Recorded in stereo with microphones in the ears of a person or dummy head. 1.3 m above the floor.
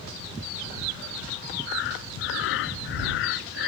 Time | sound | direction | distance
1.7 | breathing | 65° left (ahead or behind) | ?